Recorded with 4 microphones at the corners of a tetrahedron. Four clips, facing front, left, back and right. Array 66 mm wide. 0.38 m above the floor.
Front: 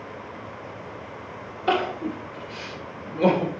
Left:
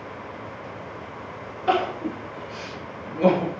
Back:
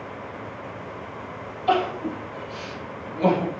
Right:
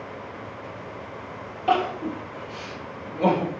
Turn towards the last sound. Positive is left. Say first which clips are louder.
# even, back 1 dB
turn(degrees=30)